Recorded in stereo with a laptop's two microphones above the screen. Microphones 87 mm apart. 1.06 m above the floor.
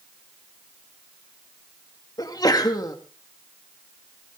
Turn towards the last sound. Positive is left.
turn(degrees=45)  # may be behind; listen again after turning